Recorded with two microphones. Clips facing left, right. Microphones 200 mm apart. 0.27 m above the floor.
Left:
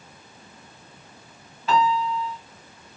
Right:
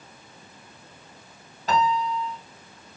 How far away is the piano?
About 2 m.